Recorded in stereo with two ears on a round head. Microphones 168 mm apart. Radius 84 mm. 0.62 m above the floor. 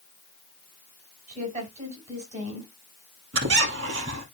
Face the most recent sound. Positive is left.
turn(degrees=-70)  # may be behind; listen again after turning